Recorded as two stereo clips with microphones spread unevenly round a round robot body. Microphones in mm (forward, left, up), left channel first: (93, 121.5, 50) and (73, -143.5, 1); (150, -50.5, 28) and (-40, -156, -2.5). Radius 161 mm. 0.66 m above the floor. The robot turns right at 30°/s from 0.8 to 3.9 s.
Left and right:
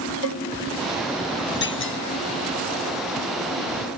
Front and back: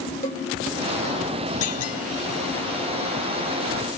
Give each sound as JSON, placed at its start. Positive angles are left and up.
{"t": 0.2, "sound": "a cowbell", "azimuth_deg": 100}
{"t": 1.6, "sound": "a clunk", "azimuth_deg": 35}